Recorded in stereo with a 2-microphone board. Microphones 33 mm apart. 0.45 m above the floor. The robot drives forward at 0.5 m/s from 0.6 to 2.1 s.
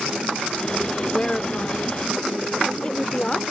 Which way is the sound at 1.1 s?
30° left (ahead or behind).